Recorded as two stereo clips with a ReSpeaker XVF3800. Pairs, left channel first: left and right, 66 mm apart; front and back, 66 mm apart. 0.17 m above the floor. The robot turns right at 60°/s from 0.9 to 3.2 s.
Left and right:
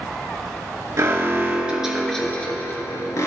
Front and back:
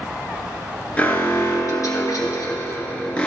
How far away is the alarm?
About 1.7 m.